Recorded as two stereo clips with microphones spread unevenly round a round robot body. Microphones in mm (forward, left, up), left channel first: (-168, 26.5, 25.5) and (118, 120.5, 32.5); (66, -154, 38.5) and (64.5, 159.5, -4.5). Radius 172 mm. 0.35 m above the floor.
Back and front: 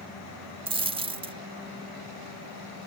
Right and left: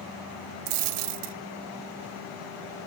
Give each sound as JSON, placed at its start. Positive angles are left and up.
{"t": 0.7, "sound": "a dropped coin", "azimuth_deg": 90, "distance_m": 0.8}